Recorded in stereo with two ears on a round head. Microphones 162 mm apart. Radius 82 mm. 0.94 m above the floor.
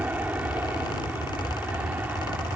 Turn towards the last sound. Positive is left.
turn(degrees=-10)  # may be behind; listen again after turning